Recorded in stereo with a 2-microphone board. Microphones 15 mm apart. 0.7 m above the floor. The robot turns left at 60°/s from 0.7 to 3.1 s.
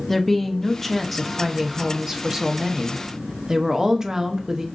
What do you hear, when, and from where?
0.1 s a woman speaking: 30° left, 0.6 m; by 4.7 s 110° right, 0.6 m